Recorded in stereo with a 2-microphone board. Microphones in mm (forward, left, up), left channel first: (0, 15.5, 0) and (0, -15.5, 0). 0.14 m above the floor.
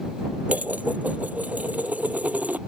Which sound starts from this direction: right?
Dishes clattering, at 0.5 s.